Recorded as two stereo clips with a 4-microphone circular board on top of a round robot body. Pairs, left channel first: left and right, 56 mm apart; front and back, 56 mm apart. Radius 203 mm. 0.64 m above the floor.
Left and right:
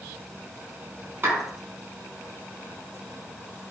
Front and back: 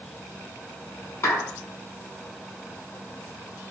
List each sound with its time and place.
1.2 s a clap: 40° right, 6 m